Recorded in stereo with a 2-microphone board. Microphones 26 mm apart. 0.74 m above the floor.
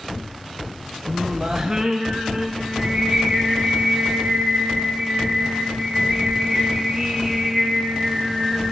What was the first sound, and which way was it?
Singing, 25° right (ahead or behind).